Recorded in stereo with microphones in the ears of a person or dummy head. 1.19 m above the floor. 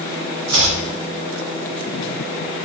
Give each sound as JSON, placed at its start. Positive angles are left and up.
{"t": 0.5, "sound": "chopping", "side_deg": -75, "distance_m": 3.5}